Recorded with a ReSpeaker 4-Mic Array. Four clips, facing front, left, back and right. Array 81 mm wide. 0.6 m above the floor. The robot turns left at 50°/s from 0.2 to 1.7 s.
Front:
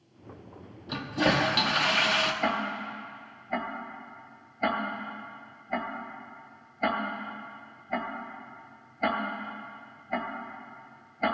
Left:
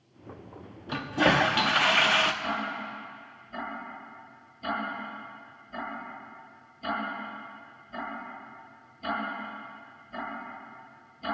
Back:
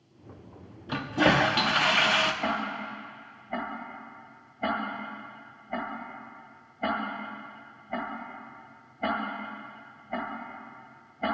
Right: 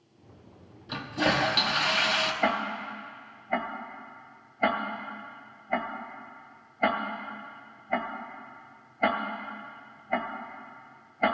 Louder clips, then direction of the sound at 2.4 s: Right 4 dB, front 1 dB; 70° right.